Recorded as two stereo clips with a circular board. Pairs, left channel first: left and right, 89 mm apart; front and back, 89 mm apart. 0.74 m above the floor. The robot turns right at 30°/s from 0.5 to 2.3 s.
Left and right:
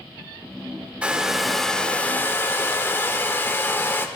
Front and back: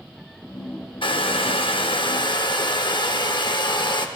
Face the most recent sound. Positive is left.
turn(degrees=25)